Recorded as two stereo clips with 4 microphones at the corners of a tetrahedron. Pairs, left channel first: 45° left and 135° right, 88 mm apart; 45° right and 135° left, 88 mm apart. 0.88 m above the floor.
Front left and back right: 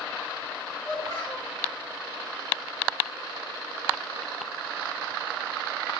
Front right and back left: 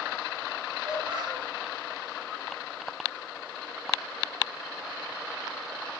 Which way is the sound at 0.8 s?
55° left.